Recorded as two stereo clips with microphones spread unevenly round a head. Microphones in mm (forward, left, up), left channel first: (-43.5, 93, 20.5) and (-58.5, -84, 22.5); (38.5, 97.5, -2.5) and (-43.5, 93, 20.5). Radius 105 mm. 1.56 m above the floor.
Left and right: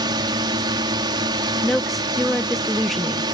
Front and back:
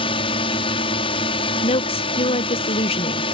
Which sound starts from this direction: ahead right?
A drone, at 0.0 s.